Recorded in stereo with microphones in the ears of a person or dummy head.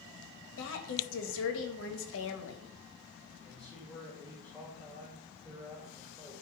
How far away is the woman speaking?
About 2 m.